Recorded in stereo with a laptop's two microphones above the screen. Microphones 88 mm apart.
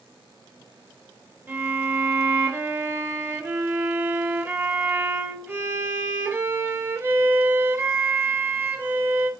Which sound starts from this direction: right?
A violin, at 1.5 s.